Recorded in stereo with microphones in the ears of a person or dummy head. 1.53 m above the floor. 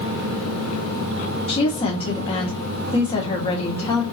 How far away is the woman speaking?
About 1.3 m.